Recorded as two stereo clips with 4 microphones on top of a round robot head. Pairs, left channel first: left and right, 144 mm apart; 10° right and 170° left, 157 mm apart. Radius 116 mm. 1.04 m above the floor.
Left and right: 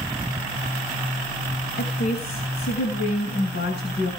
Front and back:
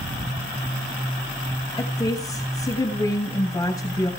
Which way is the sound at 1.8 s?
60° left.